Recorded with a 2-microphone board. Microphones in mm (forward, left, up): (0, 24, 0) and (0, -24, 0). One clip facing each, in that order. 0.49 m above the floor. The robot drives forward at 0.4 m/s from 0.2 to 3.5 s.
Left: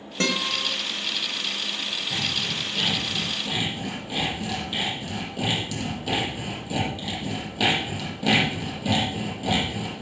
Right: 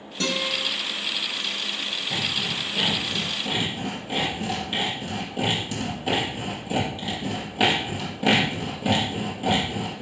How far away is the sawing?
About 4.5 m.